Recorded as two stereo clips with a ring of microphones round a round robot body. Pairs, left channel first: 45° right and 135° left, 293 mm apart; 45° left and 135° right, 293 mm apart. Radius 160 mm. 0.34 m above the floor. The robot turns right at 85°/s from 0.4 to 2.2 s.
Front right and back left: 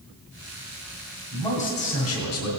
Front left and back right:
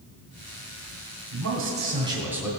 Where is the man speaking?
130° right, 2 m; by 2.5 s 55° right, 2 m.